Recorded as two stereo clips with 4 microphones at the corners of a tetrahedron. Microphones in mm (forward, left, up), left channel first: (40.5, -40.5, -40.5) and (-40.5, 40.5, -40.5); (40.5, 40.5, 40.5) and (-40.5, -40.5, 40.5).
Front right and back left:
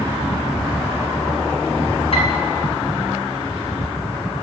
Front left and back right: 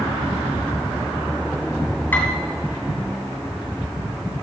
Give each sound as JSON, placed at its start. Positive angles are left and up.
{"t": 2.1, "sound": "a piano", "azimuth_deg": -30, "distance_m": 2.5}